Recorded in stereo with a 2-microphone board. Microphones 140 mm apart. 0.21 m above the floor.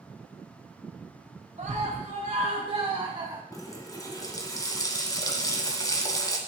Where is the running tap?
25° left (ahead or behind), 1.3 m.